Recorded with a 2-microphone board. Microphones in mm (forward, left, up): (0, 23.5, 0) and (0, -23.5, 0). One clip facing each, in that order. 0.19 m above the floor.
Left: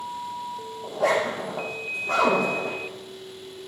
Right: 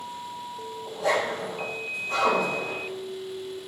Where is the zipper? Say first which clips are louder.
Left 3 dB; 80° left, 5.5 m.